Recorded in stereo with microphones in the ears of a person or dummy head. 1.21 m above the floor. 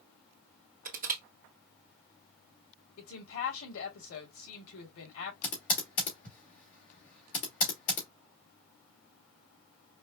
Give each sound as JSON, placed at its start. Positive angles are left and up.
{"t": 0.8, "sound": "crushing", "side_deg": -45, "distance_m": 1.0}
{"t": 3.0, "sound": "a woman speaking", "side_deg": 85, "distance_m": 2.5}
{"t": 5.4, "sound": "typing on a keyboard", "side_deg": 45, "distance_m": 1.1}